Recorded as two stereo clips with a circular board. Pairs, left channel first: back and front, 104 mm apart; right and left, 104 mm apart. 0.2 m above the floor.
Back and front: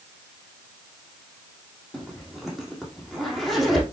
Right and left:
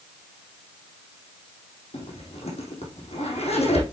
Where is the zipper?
90° right, 3.5 m.